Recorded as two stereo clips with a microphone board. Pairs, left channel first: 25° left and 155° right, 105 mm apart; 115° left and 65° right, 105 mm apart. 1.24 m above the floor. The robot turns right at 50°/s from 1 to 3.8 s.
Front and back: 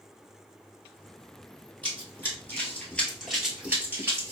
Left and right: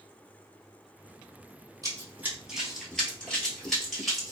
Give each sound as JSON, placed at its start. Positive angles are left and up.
{"t": 1.8, "sound": "running footsteps", "azimuth_deg": -45, "distance_m": 1.4}